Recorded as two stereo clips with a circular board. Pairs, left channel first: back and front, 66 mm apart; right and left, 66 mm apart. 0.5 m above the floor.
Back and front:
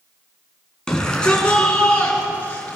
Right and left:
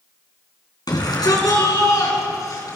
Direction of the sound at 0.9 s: 100° right.